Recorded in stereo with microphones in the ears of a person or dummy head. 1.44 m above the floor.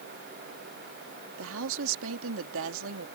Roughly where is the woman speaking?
Right.